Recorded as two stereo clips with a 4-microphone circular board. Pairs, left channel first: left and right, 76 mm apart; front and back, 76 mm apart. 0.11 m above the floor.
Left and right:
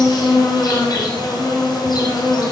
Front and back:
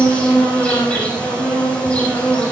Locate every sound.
0.0 s an insect: 70° left, 6.5 m